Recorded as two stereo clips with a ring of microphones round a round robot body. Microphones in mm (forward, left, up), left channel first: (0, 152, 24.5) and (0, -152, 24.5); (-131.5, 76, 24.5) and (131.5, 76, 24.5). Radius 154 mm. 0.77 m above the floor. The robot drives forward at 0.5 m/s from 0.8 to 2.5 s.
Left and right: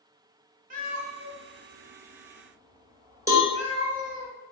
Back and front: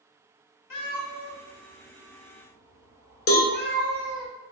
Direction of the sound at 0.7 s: 155° right.